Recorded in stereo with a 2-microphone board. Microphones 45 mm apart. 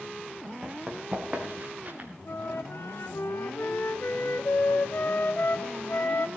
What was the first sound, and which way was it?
Running footsteps, 20° right (ahead or behind).